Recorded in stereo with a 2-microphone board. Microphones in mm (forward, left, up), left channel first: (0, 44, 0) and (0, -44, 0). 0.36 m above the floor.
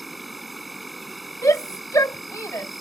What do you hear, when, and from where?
0.0 s an insect: centre (ahead or behind)
1.4 s a shout: 40° left (ahead or behind)